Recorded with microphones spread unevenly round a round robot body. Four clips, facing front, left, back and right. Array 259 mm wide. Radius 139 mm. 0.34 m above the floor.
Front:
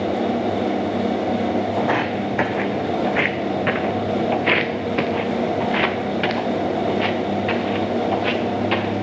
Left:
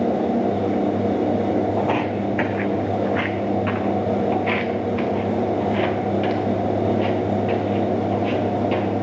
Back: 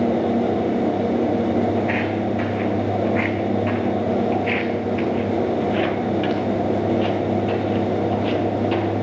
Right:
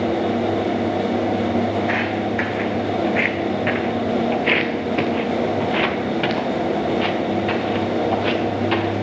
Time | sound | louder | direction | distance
1.8 | footsteps | even, front 1 dB | 35° left | 1.1 m